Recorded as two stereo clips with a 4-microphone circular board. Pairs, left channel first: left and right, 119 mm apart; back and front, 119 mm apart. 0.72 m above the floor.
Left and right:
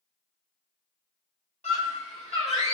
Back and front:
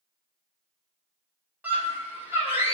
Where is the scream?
75° left, 5 m; by 2.7 s 65° left, 6 m.